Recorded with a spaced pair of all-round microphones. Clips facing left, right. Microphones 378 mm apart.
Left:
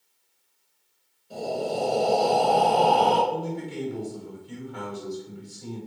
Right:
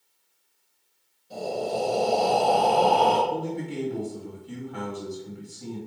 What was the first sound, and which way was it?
Breathing, centre (ahead or behind).